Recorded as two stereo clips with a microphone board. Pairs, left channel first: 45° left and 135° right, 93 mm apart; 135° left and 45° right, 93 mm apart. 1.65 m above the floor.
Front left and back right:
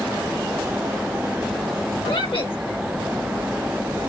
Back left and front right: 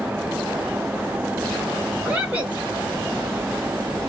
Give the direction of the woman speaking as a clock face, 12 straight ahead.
11 o'clock.